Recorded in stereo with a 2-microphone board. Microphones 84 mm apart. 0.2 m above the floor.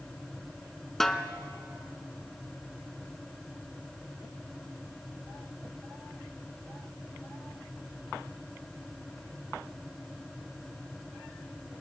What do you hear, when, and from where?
1.0 s a snare drum: 5° left (ahead or behind), 0.9 m